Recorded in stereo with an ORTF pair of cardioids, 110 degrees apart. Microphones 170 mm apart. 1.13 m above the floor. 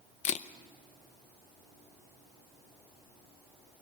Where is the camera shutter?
45° left, 0.7 m.